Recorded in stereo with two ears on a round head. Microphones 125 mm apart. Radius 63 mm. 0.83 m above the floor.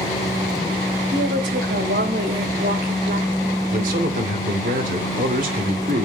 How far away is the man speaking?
About 2.5 m.